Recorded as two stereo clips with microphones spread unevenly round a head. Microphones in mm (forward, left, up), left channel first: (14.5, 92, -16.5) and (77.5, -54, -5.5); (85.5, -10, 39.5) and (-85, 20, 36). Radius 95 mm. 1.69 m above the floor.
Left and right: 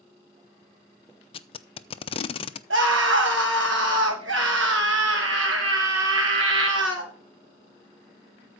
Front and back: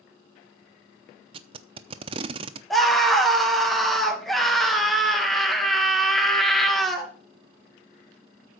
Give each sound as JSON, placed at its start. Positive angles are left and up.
{"t": 1.3, "sound": "tape being pulled", "azimuth_deg": 135, "distance_m": 0.6}
{"t": 2.7, "sound": "a scream", "azimuth_deg": -100, "distance_m": 3.0}